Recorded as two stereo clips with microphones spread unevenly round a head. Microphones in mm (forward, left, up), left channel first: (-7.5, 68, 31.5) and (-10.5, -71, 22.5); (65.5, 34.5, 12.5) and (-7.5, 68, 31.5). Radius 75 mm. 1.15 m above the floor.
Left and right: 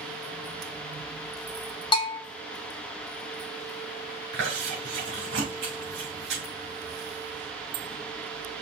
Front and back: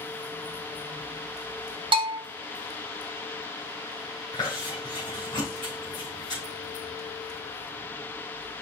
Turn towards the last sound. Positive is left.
turn(degrees=-85)